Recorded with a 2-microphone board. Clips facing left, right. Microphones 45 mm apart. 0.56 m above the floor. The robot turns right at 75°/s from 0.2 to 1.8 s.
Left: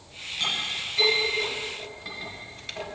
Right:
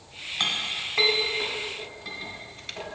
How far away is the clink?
About 1.9 m.